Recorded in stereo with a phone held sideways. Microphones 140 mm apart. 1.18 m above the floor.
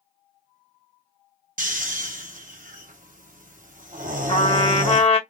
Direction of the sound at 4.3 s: 45° left (ahead or behind).